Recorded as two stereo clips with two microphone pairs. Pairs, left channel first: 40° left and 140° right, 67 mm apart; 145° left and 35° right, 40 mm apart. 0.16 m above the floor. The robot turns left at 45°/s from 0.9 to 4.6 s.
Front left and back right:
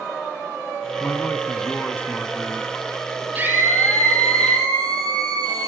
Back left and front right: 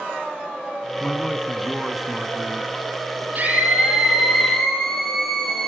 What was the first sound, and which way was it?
A man speaking, 85° left.